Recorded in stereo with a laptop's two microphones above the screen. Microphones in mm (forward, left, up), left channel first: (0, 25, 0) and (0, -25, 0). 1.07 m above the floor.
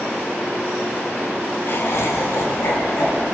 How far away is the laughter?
About 0.6 m.